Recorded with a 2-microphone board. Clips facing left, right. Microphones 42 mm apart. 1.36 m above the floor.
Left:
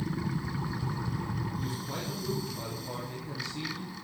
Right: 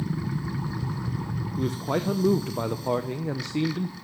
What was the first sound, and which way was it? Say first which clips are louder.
A man speaking: right 9 dB; 70° right (ahead or behind).